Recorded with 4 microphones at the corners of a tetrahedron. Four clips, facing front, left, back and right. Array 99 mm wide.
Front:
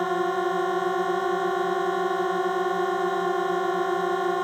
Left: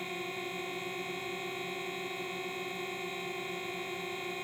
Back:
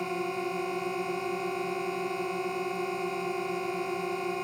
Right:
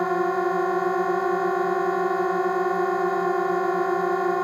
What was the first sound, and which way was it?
A drone, 60° right.